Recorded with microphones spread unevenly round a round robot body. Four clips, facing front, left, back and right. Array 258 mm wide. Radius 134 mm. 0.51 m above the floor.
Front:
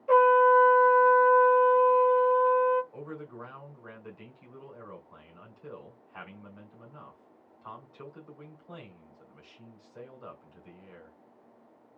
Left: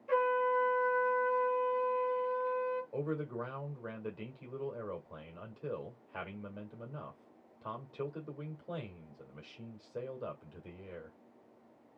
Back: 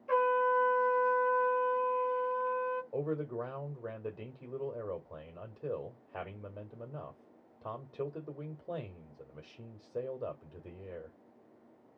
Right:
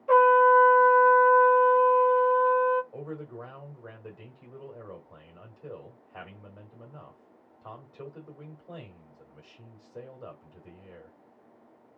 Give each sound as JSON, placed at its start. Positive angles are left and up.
{"t": 0.1, "sound": "a trumpet", "azimuth_deg": -40, "distance_m": 0.9}
{"t": 2.9, "sound": "a man speaking", "azimuth_deg": 170, "distance_m": 1.8}